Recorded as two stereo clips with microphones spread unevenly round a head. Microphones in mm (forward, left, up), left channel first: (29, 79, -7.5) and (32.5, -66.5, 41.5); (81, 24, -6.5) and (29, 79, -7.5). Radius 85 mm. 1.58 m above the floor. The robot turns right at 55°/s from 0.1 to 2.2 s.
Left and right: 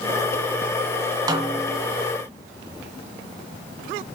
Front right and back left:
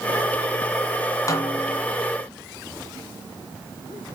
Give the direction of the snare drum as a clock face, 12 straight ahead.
3 o'clock.